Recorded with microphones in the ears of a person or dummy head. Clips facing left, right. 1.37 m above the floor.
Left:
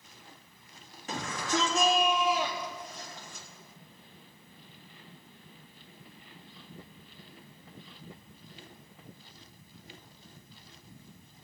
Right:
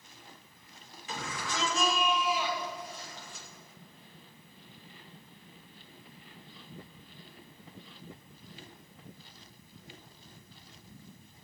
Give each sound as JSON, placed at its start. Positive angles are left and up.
{"t": 1.1, "sound": "a shout", "side_deg": 40, "distance_m": 3.0}